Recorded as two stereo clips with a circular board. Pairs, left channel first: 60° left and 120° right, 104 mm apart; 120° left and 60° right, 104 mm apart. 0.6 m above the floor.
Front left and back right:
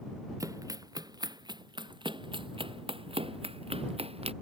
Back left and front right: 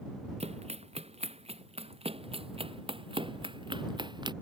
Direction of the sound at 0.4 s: 65° right.